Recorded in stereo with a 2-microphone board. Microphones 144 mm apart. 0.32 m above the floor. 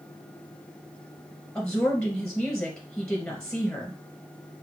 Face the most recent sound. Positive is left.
turn(degrees=5)  # may be behind; listen again after turning